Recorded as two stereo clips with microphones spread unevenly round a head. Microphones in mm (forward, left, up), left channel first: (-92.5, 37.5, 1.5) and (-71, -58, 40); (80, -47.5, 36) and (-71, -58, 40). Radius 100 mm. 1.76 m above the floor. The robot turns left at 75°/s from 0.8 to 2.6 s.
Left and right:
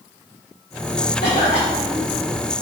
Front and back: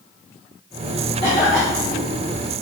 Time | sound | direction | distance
1.2 | a cough | 70° left | 0.8 m